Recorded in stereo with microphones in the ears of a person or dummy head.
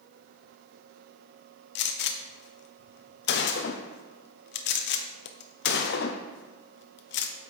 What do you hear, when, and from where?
1.8 s a gunshot: 55° left (ahead or behind), 0.6 m